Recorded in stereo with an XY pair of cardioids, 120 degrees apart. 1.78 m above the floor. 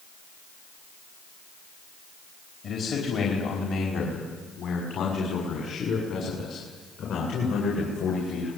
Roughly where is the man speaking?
Ahead left.